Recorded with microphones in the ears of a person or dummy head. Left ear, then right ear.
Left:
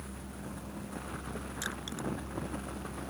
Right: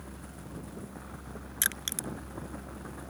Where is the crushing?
40° right (ahead or behind).